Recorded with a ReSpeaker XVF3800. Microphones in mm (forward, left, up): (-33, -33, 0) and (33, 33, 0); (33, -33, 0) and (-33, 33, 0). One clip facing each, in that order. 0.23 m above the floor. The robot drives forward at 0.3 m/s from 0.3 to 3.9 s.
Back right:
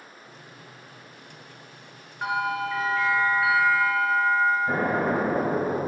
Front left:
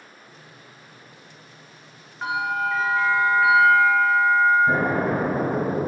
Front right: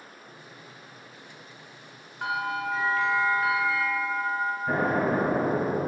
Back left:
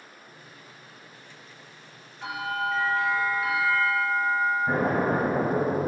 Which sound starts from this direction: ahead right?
A bell, at 2.2 s.